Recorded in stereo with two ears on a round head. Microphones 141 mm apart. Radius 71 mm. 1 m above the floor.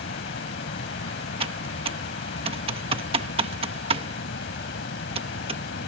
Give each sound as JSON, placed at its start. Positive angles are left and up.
{"t": 0.0, "sound": "running water", "side_deg": 90}
{"t": 1.4, "sound": "typing on a keyboard", "side_deg": -35}